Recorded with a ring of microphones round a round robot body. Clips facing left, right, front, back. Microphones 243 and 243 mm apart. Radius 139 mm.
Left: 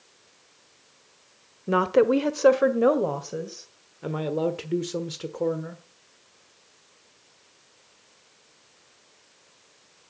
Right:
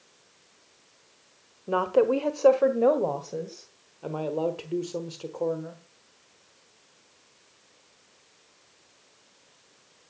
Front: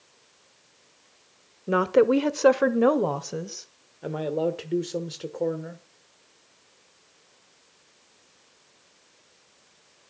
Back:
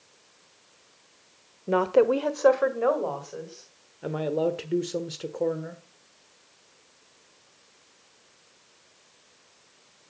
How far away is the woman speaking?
About 1.0 m.